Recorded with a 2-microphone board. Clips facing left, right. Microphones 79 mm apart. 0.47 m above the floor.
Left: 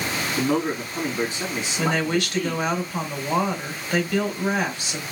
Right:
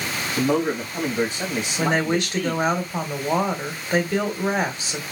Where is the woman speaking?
30° right (ahead or behind), 1.6 m.